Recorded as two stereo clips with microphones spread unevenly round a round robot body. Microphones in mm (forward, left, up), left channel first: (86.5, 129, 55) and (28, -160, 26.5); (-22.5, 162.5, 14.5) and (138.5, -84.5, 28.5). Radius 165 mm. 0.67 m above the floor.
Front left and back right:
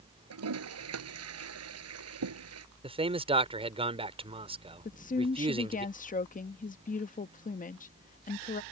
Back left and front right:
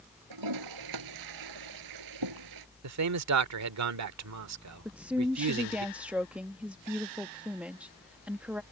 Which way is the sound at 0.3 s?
65° right.